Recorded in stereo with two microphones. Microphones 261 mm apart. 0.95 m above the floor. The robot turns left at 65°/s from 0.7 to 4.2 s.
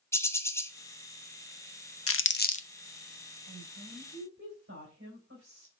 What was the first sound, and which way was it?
A bird, 10° left (ahead or behind).